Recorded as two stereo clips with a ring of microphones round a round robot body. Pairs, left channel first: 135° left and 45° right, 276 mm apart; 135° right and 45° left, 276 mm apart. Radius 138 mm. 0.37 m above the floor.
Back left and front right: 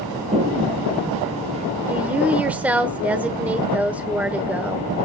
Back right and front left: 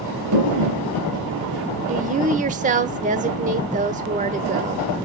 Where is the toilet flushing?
25° left, 5.5 m.